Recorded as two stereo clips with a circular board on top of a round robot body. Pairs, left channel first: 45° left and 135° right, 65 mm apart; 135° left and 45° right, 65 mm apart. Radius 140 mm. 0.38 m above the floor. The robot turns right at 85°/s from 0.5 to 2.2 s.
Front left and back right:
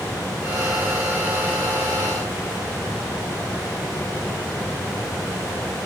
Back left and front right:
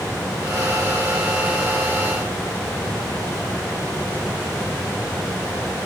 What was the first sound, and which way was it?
Only background noise.